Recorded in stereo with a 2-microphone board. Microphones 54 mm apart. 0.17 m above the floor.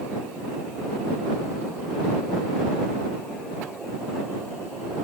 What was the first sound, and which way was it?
Only background noise.